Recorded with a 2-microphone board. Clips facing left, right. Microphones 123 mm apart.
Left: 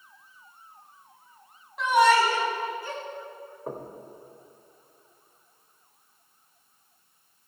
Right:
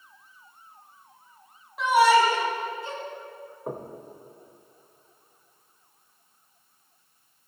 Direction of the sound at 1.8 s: 5° right (ahead or behind).